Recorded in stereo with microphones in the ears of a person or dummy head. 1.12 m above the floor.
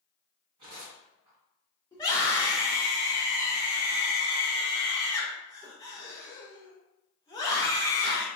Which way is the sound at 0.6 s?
35° right (ahead or behind).